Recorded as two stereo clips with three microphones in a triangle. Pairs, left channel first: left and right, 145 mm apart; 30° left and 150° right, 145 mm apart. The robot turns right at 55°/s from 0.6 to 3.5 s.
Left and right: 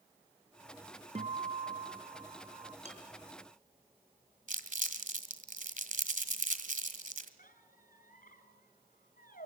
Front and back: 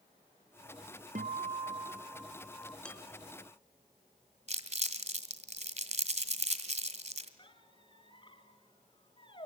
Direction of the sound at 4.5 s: 115° right.